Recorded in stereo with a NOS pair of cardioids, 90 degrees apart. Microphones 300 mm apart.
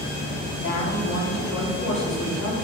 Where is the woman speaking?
60° left, 4.5 m.